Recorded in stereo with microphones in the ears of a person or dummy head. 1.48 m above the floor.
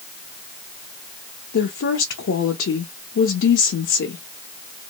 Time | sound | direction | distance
1.5 | a woman speaking | 60° left (ahead or behind) | 0.8 m